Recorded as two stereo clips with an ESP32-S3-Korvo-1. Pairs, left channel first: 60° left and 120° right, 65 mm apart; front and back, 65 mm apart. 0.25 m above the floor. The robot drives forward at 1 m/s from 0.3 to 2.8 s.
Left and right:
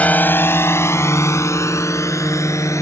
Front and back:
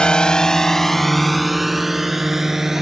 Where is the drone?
55° left; by 2.8 s 95° left.